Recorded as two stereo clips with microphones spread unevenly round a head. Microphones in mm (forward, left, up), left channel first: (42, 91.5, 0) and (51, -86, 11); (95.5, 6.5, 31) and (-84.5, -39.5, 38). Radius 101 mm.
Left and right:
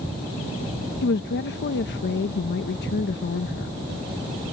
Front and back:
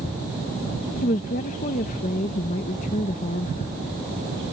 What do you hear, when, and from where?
1.0 s a woman speaking: 65° left